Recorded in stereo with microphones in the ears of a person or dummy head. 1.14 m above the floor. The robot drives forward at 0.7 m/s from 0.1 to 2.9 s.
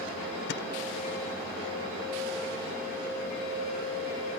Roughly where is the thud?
Left.